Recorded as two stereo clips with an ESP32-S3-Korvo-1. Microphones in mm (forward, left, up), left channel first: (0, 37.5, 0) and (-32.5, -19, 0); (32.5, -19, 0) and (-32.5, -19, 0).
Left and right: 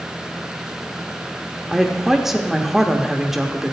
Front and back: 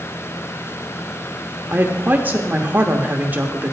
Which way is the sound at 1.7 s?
165° left.